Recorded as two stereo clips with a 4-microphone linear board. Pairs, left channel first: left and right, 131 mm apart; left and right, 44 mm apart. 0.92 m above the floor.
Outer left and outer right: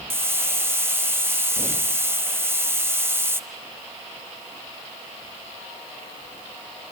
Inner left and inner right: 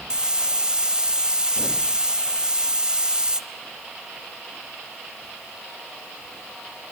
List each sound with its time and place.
0.1 s a hiss: 20° right (ahead or behind), 1.0 m